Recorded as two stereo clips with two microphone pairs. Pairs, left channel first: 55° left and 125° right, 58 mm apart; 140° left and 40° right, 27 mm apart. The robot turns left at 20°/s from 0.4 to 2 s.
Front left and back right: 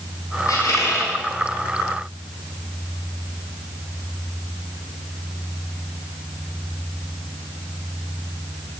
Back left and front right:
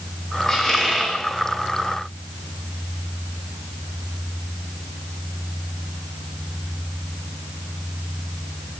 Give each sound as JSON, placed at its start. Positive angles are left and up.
{"t": 0.5, "sound": "a squeak", "azimuth_deg": 65, "distance_m": 2.0}